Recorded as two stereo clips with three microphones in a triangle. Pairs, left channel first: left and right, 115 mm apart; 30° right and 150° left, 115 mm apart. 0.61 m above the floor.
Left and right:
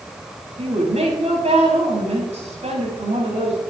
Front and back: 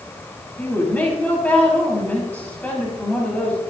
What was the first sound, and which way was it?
A woman speaking, 110° right.